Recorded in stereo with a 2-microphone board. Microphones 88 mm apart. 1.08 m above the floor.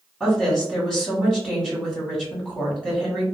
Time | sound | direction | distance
0.2 | a woman speaking | 5° left (ahead or behind) | 1.8 m